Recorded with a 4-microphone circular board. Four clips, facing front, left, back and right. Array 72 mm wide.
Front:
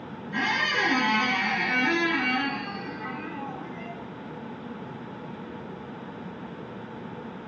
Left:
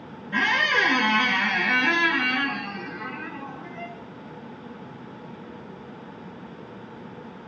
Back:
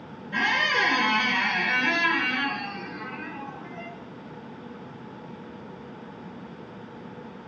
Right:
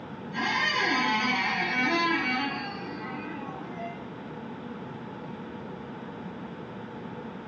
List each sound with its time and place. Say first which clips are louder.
0.3 s a squeak: left 6 dB, back 2 dB; 105° left, 0.7 m